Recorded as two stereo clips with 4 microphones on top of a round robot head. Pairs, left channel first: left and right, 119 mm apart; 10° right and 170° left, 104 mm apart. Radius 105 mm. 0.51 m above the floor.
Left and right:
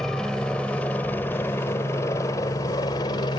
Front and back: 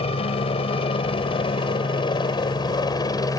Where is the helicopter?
5° left; by 3.4 s 40° left.